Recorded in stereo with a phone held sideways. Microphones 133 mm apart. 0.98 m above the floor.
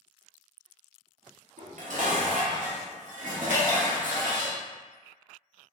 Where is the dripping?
60° left (ahead or behind), 1.3 m.